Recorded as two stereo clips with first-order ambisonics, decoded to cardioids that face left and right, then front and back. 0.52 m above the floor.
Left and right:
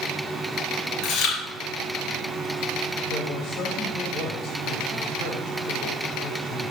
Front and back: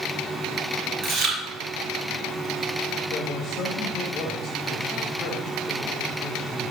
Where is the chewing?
115° left, 4 m.